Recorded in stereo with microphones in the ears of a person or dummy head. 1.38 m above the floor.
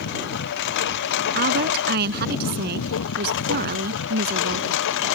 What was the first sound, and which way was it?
A lawn mower, 65° left (ahead or behind).